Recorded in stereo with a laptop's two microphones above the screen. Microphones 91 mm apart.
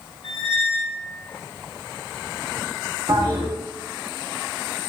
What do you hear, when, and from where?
0.2 s a squeak: 60° left (ahead or behind), 1.5 m
3.1 s a toilet flushing: 45° right (ahead or behind), 0.7 m